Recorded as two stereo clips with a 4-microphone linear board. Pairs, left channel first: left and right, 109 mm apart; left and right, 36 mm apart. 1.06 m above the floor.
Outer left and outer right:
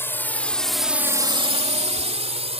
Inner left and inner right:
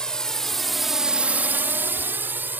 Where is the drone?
20° left (ahead or behind); by 2.6 s 65° right (ahead or behind).